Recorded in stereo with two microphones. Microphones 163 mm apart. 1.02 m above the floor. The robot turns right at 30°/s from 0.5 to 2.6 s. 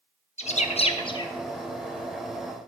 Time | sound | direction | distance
0.4 | a bird | 40° left (ahead or behind) | 0.7 m